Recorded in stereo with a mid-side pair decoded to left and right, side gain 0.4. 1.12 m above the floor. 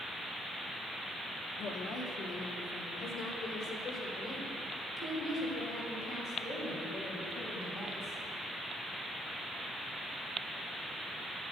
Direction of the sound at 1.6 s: 65° left.